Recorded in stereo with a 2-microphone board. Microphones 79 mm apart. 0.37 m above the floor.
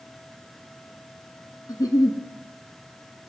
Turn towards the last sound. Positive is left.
turn(degrees=50)  # may be behind; listen again after turning